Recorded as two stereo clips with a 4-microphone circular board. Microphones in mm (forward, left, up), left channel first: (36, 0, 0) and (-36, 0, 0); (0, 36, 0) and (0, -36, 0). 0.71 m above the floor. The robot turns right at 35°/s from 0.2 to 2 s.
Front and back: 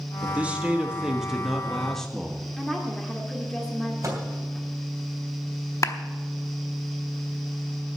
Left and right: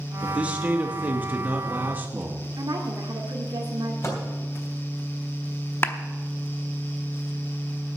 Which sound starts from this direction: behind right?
A man speaking, at 0.2 s.